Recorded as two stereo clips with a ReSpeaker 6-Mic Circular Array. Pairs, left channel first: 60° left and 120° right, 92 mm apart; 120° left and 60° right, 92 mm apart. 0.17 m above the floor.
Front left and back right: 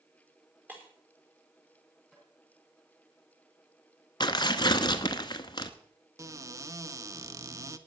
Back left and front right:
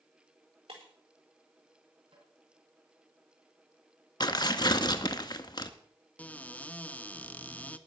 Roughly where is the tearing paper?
Left.